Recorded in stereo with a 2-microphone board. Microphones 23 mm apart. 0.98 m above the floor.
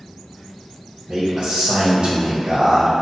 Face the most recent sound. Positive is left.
turn(degrees=-35)  # may be behind; listen again after turning